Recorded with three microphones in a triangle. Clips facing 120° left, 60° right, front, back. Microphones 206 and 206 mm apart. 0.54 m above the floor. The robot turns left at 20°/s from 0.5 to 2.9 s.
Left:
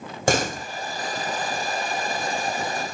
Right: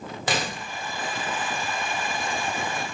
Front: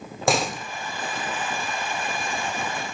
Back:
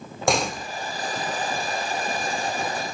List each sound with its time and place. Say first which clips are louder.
0.3 s a door slam: left 7 dB, even; 90° left, 1.0 m; by 0.7 s 85° left, 1.0 m